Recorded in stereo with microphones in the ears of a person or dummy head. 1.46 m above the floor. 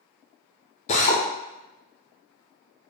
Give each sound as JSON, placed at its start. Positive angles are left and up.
{"t": 0.9, "sound": "a drill", "side_deg": 35, "distance_m": 0.7}